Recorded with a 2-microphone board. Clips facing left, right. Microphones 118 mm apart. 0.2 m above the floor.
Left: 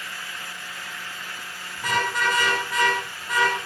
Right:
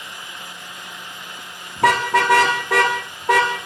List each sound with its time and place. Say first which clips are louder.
1.8 s a car horn: right 9 dB; 85° right, 8 m